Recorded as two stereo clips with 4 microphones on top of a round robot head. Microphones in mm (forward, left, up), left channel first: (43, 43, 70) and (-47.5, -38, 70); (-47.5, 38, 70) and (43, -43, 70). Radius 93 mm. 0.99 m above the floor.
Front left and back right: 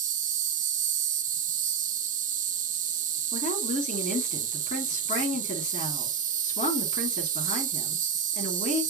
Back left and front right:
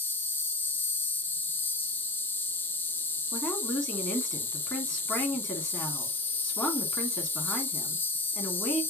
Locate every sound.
0.0 s an insect: 145° right, 0.8 m
3.3 s a woman speaking: 55° left, 2 m